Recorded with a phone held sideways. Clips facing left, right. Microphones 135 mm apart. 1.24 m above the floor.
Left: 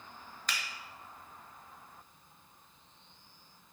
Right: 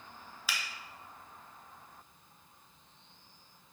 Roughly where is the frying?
No frying in this recording.